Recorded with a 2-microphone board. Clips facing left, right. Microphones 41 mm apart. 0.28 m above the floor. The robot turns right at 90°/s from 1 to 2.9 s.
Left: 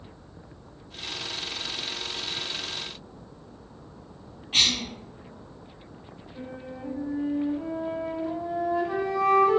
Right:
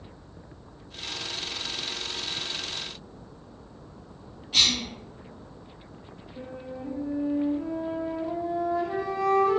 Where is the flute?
30° left (ahead or behind), 0.7 m.